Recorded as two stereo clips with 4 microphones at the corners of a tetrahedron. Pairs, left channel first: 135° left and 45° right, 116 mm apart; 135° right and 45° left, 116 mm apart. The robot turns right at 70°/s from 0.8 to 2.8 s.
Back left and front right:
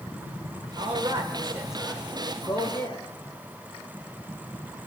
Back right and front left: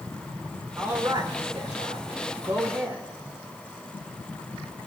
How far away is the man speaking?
About 1.9 m.